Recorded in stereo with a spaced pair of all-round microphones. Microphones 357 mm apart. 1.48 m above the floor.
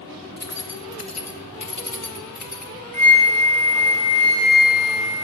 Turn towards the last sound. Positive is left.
turn(degrees=75)  # may be behind; listen again after turning